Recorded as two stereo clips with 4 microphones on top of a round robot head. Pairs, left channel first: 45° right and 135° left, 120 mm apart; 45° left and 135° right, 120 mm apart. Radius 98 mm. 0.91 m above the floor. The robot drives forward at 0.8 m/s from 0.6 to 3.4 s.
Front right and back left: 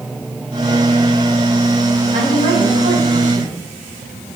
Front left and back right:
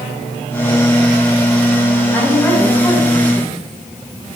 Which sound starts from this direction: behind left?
A woman speaking, at 2.1 s.